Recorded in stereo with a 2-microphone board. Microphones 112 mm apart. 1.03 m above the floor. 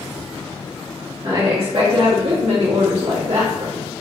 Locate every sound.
1.2 s a woman speaking: 45° right (ahead or behind), 1.7 m; by 3.9 s 75° right (ahead or behind), 1.1 m